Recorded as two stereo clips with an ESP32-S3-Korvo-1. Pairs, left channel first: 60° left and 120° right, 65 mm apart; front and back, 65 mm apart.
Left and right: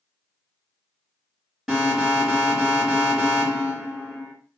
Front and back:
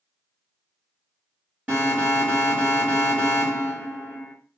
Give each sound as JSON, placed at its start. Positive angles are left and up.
{"t": 1.7, "sound": "an alarm", "azimuth_deg": 160, "distance_m": 2.0}